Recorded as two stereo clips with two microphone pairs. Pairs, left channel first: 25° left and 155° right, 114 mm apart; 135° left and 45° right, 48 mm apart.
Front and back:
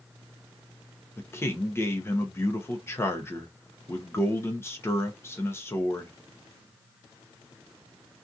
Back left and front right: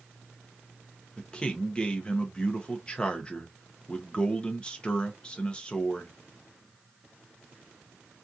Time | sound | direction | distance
1.2 | a man speaking | 75° left | 0.6 m